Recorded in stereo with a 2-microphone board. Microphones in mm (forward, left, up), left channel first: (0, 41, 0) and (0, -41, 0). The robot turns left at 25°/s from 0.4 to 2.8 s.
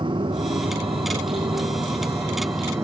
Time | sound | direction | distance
0.0 | a motorcycle | 85° right | ?